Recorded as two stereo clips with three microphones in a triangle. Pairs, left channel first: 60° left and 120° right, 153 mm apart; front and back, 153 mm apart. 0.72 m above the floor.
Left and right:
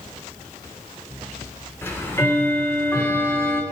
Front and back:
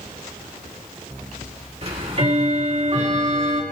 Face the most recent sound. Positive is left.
turn(degrees=135)